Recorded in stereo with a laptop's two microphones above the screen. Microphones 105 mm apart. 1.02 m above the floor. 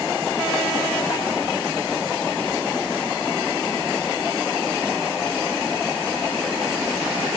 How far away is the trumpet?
No trumpet in this recording.